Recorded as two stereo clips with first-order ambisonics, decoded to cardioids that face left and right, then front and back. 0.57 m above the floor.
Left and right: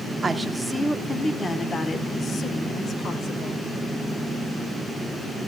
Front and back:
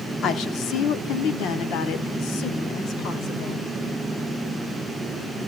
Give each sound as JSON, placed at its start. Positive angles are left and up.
{"t": 0.2, "sound": "a woman speaking", "azimuth_deg": -20, "distance_m": 1.1}